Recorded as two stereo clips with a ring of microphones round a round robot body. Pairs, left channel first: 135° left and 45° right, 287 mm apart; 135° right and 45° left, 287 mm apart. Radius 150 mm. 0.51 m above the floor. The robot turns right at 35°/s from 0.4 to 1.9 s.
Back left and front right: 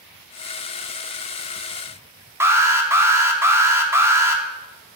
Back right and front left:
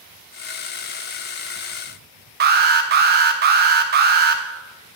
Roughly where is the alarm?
Ahead left.